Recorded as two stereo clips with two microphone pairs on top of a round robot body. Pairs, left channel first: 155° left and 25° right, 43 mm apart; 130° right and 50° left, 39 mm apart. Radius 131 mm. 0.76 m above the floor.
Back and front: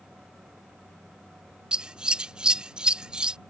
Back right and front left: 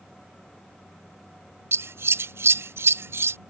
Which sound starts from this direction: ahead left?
Scissors, at 1.7 s.